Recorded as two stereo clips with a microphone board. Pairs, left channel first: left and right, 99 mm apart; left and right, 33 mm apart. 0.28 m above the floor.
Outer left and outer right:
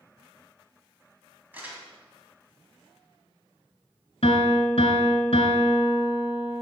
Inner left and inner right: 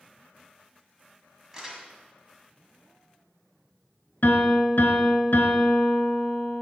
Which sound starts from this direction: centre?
Crumpling, at 1.5 s.